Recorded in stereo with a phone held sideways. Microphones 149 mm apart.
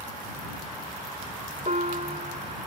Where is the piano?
65° right (ahead or behind).